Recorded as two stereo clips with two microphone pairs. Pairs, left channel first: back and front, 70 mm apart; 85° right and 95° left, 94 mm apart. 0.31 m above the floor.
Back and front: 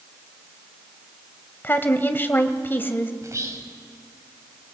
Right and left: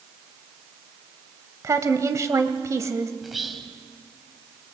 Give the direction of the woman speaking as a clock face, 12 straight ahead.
8 o'clock.